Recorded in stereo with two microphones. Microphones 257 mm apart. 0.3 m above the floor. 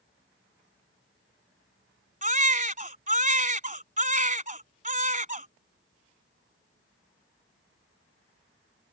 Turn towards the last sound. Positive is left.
turn(degrees=-30)  # may be behind; listen again after turning